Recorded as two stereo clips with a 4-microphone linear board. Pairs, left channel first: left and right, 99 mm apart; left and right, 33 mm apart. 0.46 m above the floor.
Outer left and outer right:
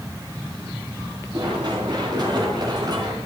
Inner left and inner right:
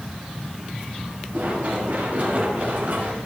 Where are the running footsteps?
45° right (ahead or behind), 8 m.